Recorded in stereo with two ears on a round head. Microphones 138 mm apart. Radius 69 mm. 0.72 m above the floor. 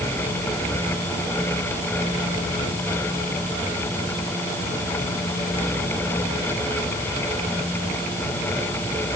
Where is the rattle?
No rattle in this recording.